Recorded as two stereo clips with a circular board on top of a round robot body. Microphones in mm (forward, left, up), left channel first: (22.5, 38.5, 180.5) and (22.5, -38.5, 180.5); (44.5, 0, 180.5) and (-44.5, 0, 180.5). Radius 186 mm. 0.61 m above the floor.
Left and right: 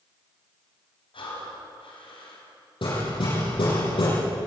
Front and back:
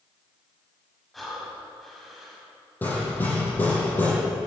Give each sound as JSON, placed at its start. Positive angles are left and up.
{"t": 1.1, "sound": "breathing", "azimuth_deg": 90, "distance_m": 5.0}
{"t": 2.8, "sound": "hammering", "azimuth_deg": 75, "distance_m": 8.5}